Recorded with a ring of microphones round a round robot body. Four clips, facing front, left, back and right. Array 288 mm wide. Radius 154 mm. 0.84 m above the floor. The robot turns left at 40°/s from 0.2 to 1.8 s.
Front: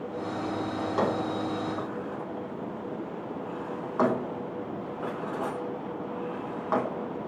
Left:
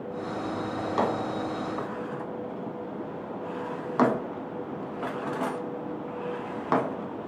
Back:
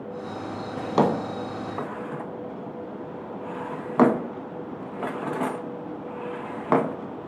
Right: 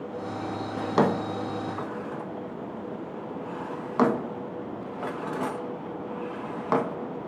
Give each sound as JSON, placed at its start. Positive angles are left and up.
{"t": 0.8, "sound": "a drawer", "azimuth_deg": -145, "distance_m": 0.5}